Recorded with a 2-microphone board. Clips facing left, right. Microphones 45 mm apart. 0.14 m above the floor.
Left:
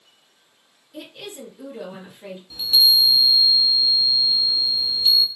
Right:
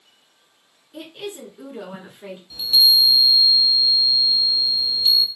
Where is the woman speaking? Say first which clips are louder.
Right 3 dB; 25° right (ahead or behind), 1.8 m.